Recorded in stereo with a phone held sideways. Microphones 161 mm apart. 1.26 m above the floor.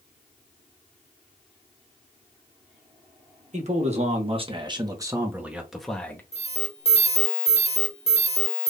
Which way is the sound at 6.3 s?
40° left (ahead or behind).